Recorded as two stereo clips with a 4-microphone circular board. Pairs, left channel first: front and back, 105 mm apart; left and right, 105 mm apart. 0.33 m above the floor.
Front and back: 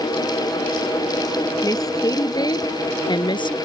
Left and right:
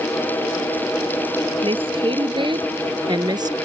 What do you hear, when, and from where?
1.6 s a woman speaking: 55° right; by 3.6 s 40° right